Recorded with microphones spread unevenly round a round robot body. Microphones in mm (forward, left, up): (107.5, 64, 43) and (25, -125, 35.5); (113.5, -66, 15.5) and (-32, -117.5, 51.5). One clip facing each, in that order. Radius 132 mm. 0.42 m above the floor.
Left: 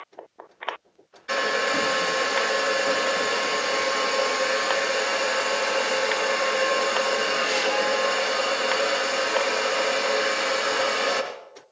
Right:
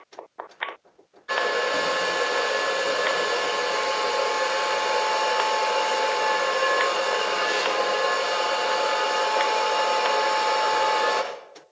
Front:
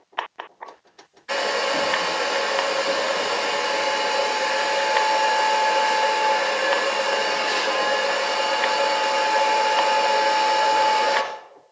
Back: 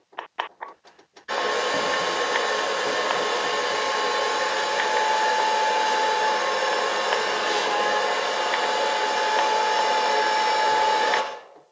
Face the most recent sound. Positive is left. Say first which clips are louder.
# right 1 dB, front 1 dB
turn(degrees=135)